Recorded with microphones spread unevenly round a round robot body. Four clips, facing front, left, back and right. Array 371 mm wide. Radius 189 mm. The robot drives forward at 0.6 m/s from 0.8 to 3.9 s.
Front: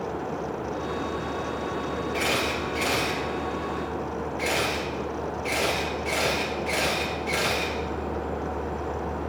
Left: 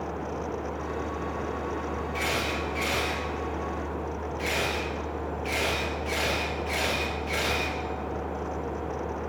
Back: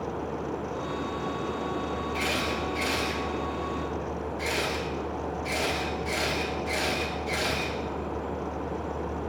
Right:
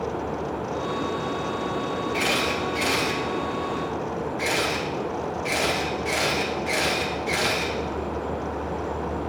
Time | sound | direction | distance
2.1 | a camera shutter | 60° right | 3.5 m